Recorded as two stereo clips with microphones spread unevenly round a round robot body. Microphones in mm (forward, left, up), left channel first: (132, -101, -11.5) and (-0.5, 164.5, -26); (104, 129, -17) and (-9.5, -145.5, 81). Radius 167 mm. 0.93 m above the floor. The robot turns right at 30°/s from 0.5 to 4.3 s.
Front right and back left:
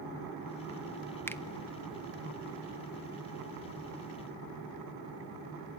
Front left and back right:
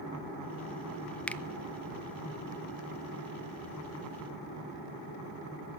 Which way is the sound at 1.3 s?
15° left.